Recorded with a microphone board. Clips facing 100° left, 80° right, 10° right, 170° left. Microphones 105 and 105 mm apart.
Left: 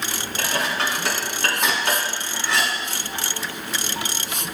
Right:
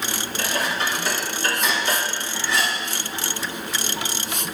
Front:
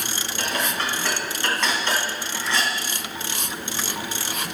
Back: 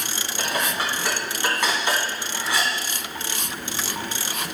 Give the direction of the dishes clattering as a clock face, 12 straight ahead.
9 o'clock.